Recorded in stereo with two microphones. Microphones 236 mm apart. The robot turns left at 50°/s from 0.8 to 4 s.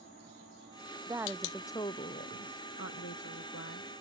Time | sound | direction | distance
1.1 | a woman speaking | 165° right | ?